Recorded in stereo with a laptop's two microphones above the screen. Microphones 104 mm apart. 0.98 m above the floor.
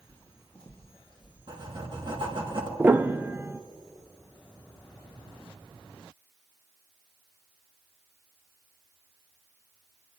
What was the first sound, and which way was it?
Footsteps, 15° left (ahead or behind).